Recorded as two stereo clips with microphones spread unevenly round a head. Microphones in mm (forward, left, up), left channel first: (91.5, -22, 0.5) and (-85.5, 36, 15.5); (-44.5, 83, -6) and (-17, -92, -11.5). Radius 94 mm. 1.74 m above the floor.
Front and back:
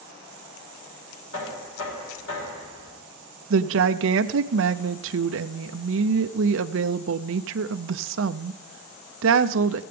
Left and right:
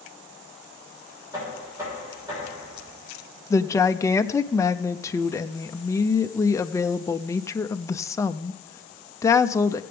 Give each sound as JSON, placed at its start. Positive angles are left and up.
{"t": 1.3, "sound": "knocking", "azimuth_deg": -10, "distance_m": 6.0}
{"t": 3.5, "sound": "a woman speaking", "azimuth_deg": 170, "distance_m": 0.5}